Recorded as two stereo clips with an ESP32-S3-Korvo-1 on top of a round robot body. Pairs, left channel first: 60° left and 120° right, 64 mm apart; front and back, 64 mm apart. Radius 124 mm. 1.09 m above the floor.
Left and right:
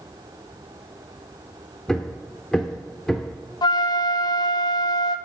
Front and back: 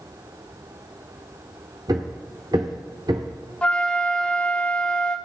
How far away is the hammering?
About 0.9 m.